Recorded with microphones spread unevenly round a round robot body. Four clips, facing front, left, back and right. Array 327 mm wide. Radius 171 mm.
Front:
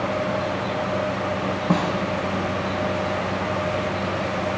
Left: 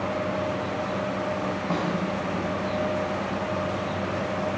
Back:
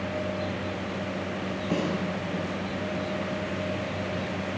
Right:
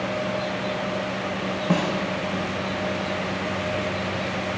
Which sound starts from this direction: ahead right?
A snare drum, at 1.7 s.